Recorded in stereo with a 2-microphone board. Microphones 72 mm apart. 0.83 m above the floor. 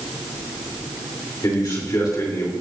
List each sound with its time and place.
1.4 s a man speaking: 55° left (ahead or behind), 3 m